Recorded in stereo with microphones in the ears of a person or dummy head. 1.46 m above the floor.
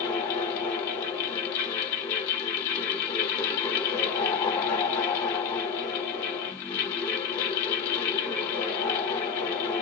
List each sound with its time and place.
0.0 s a fan: 30° left (ahead or behind), 1.0 m